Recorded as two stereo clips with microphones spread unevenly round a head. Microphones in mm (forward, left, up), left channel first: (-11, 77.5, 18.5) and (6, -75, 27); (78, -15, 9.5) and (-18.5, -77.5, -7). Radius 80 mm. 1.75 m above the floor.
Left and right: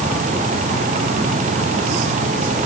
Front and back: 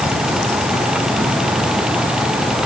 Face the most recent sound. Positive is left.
No sound to turn to.